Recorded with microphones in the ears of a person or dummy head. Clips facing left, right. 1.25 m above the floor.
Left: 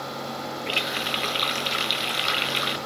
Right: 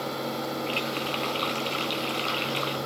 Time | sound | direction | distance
0.7 | a running tap | 25° left (ahead or behind) | 0.7 m